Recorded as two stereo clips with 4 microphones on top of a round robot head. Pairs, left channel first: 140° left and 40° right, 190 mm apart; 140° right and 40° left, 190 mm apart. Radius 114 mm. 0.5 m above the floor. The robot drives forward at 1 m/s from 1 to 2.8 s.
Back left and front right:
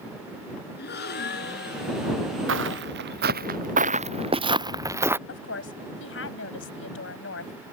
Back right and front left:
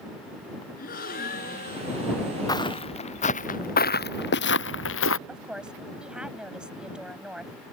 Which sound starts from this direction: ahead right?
Footsteps, at 2.5 s.